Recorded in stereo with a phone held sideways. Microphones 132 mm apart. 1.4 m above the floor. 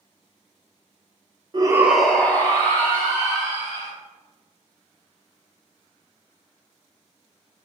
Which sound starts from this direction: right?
A shout, at 1.5 s.